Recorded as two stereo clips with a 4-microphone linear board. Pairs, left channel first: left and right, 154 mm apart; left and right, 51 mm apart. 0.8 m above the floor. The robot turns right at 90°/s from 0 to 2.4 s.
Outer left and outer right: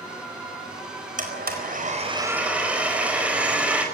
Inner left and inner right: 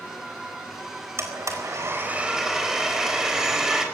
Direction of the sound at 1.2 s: 120° right.